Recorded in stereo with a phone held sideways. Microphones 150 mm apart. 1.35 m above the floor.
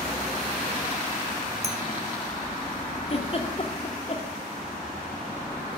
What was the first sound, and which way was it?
A clink, 45° right (ahead or behind).